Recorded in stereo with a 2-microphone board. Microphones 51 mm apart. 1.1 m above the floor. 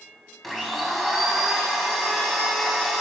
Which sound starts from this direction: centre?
A blender, at 0.4 s.